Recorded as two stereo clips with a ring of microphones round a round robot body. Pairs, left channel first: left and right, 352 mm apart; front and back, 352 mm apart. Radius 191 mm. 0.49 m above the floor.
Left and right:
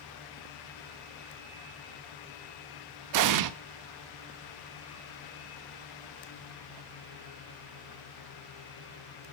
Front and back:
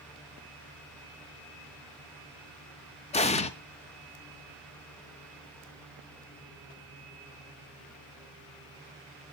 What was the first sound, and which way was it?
An explosion, 70° right.